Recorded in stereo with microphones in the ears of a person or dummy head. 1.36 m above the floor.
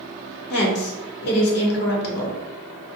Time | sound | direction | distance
0.5 | a woman speaking | 55° left (ahead or behind) | 0.8 m